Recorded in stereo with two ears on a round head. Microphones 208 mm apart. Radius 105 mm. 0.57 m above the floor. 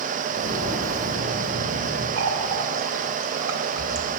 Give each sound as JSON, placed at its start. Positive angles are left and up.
{"t": 0.3, "sound": "footsteps", "side_deg": -60, "distance_m": 3.0}
{"t": 2.2, "sound": "a running tap", "side_deg": -65, "distance_m": 1.4}